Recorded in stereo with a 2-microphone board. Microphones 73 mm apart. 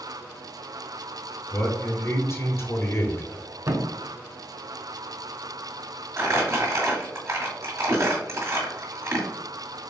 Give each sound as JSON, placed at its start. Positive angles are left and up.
{"t": 1.5, "sound": "a man speaking", "side_deg": 35, "distance_m": 1.1}
{"t": 3.7, "sound": "a thud", "side_deg": -45, "distance_m": 0.5}
{"t": 6.2, "sound": "crumpling", "side_deg": -45, "distance_m": 1.6}